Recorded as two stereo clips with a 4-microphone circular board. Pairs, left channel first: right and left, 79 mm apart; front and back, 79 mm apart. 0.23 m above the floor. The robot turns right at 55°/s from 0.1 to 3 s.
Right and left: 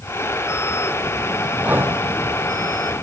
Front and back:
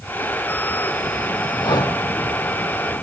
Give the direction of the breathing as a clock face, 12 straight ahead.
11 o'clock.